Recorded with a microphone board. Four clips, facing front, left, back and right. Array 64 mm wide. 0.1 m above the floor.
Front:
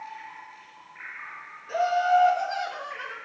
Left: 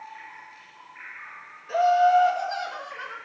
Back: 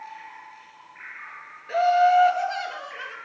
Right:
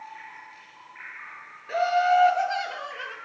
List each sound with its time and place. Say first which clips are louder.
1.7 s laughter: left 3 dB, back 4 dB; 135° right, 1.3 m; by 3.1 s 110° right, 1.8 m